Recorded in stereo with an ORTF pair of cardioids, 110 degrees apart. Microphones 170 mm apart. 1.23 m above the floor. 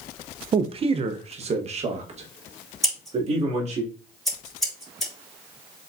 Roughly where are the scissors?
Ahead.